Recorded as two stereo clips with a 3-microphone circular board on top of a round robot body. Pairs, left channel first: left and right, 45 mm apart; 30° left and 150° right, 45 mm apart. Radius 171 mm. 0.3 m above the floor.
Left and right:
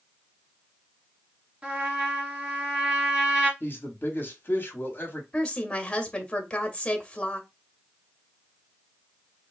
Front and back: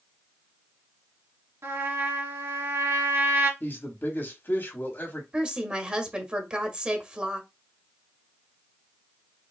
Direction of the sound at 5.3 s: 155° left.